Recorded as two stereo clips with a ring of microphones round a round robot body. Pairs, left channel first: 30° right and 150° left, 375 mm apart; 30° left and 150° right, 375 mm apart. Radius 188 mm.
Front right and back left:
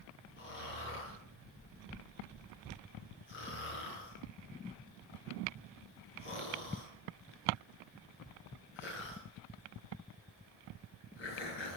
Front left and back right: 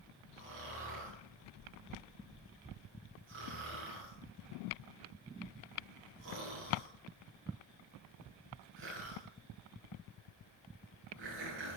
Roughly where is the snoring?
Right.